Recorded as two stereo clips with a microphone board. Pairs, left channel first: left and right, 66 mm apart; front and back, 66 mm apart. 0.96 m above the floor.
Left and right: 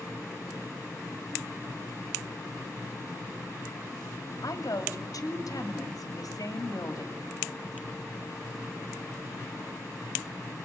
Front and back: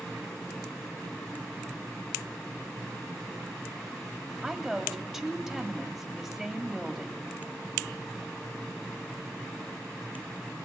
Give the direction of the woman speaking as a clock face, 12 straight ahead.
9 o'clock.